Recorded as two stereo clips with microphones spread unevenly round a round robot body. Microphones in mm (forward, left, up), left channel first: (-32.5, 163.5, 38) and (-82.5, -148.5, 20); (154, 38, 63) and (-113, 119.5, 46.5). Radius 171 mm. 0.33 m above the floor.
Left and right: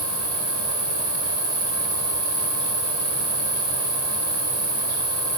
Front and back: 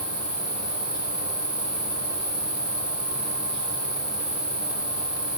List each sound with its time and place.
0.0 s an insect: 125° right, 3 m